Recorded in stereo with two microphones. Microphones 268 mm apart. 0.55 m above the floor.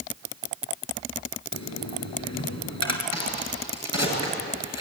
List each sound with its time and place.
1.5 s a dropped coin: 85° left, 2.5 m
3.1 s a crack: 70° left (ahead or behind), 8 m